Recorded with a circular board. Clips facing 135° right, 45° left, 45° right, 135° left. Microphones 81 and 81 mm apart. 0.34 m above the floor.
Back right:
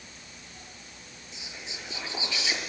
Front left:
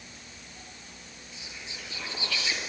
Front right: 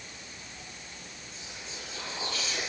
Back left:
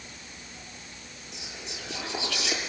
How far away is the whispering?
About 7 m.